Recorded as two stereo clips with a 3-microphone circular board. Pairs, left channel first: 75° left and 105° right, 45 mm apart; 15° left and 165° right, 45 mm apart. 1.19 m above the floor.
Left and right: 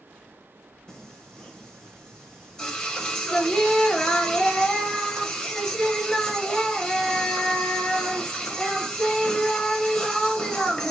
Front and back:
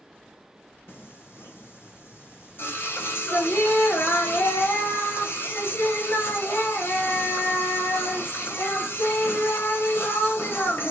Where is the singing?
5° right, 1.0 m.